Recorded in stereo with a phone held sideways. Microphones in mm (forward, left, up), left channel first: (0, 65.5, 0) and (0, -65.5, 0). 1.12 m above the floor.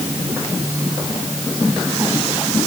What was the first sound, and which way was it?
Only background noise.